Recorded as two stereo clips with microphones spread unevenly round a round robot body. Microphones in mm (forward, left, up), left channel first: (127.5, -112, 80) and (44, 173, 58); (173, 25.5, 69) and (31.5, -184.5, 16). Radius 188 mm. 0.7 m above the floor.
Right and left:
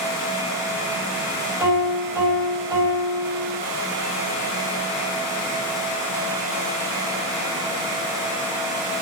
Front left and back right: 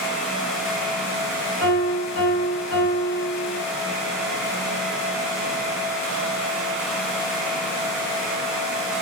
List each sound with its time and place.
1.6 s a piano: 25° left, 4.5 m